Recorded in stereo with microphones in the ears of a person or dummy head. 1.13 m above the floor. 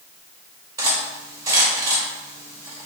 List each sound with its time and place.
0.8 s cutlery clinking: 20° right (ahead or behind), 2 m